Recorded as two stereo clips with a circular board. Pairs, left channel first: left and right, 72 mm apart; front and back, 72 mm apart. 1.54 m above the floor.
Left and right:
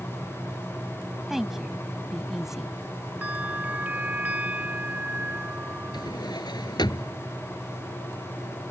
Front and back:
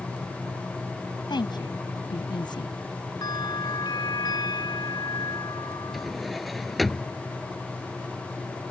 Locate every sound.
1.3 s a woman speaking: 5° right
3.2 s a bell: 20° right
5.9 s a drawer: 90° left